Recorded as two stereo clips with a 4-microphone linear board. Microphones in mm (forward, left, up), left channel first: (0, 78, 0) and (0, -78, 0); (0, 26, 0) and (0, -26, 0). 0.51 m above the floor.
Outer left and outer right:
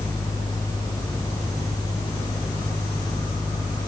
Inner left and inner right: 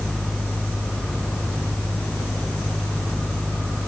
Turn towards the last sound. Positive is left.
No sound to turn to.